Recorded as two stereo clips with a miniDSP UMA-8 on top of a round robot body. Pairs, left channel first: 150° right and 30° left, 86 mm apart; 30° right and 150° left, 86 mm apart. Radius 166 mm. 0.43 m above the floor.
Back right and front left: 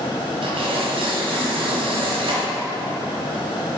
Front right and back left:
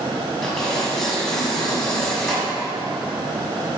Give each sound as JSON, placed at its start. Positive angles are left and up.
{"t": 0.4, "sound": "tearing paper", "azimuth_deg": 55, "distance_m": 2.0}